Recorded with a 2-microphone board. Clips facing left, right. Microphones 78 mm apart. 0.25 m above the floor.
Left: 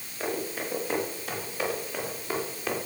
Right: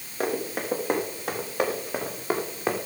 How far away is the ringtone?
I don't hear a ringtone.